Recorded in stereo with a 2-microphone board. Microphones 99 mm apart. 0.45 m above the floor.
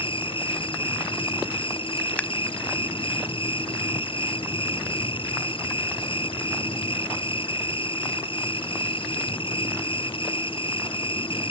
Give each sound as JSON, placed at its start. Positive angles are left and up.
{"t": 0.0, "sound": "an insect", "side_deg": 60}
{"t": 2.2, "sound": "scissors", "side_deg": 15}